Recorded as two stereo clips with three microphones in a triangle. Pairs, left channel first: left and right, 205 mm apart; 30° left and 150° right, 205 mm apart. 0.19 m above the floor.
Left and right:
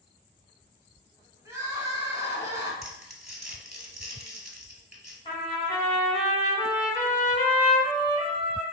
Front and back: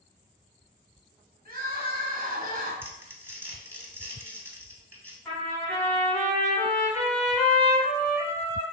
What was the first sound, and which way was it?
Crying, 160° right.